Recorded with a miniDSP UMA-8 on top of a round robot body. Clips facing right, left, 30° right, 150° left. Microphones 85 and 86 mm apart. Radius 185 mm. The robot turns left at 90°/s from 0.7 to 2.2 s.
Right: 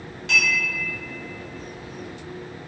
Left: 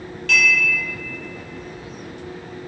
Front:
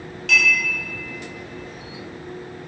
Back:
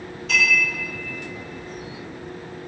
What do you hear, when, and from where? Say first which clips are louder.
0.3 s a clink: left 4 dB, front 1 dB; 20° right, 1.3 m